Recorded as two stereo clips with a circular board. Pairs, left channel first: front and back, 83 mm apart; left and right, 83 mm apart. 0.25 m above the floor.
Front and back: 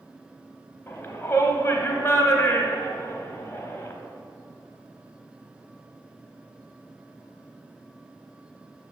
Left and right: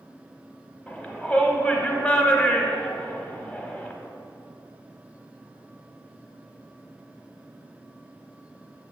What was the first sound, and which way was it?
A shout, 35° left.